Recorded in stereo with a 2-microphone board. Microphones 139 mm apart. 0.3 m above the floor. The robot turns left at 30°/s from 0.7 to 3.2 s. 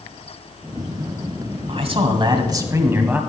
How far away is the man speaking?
About 1.6 m.